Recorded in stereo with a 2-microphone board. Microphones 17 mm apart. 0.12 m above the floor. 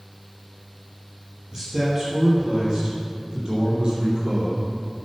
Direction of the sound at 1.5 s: 35° right (ahead or behind).